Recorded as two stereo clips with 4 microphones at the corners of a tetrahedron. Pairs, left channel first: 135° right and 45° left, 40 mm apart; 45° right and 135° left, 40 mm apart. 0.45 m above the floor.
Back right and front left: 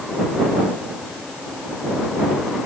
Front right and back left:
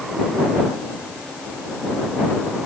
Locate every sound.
Only background noise.